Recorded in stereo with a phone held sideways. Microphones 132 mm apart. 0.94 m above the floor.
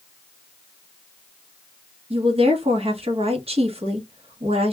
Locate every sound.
2.1 s a woman speaking: 55° right (ahead or behind), 0.9 m